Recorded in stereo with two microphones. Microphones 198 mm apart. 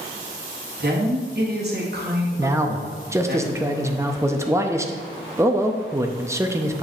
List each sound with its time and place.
0.8 s a woman speaking: 50° right (ahead or behind), 1.4 m
2.4 s a man speaking: 15° right (ahead or behind), 0.5 m